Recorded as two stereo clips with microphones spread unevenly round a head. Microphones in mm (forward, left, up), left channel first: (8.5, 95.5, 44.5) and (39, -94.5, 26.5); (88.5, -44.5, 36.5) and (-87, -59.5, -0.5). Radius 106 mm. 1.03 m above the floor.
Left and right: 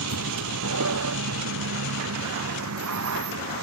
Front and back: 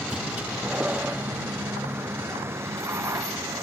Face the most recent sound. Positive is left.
turn(degrees=-100)